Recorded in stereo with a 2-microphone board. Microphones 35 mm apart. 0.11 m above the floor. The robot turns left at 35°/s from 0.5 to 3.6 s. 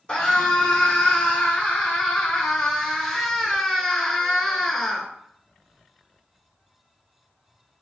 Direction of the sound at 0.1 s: 25° left (ahead or behind).